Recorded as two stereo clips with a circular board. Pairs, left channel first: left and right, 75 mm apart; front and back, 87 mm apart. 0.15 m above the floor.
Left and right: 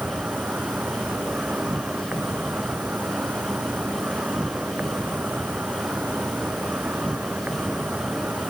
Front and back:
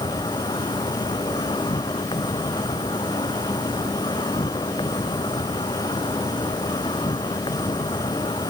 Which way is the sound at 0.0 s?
20° right.